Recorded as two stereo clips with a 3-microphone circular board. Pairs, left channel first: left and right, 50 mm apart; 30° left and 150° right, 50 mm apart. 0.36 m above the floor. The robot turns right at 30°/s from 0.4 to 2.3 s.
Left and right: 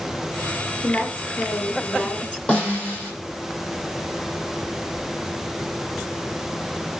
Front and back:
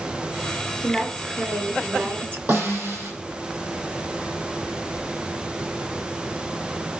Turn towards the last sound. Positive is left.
turn(degrees=155)